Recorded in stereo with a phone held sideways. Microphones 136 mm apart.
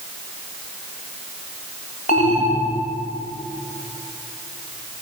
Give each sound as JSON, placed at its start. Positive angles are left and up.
{"t": 2.1, "sound": "an alarm", "side_deg": 70, "distance_m": 4.5}